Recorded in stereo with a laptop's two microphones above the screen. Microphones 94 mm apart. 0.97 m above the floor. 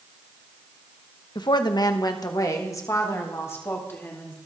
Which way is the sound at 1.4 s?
50° left (ahead or behind).